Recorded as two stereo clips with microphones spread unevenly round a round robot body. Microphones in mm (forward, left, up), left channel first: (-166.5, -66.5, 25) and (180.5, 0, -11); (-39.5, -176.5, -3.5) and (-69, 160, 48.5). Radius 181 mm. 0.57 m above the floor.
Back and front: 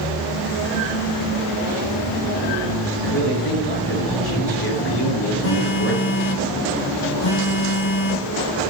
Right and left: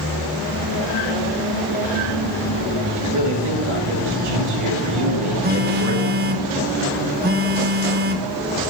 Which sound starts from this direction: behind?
A phone buzzing, at 5.4 s.